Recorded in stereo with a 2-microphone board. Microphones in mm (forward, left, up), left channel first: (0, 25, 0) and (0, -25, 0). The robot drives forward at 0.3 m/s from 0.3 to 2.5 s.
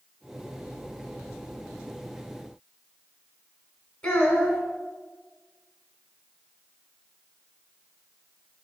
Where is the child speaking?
20° left (ahead or behind), 0.8 m.